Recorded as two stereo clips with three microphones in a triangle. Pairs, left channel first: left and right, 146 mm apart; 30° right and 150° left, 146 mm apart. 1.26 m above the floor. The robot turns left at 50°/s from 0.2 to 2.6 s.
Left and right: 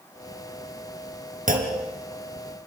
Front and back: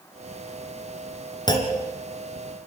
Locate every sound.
1.5 s a clunk: 90° right, 3 m; by 1.8 s 105° right, 3 m